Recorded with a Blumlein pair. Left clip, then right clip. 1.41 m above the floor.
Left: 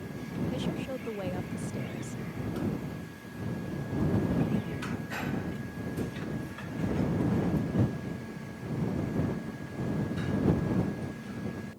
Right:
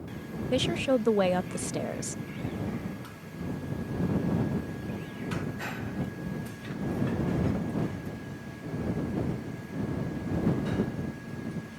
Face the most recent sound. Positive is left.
turn(degrees=-60)